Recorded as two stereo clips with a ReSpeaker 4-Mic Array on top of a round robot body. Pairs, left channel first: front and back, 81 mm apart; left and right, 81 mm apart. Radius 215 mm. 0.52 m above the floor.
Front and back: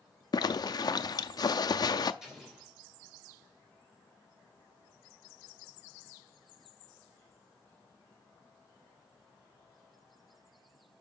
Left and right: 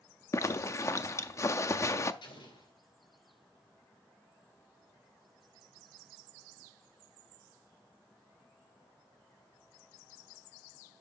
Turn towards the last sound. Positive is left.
turn(degrees=95)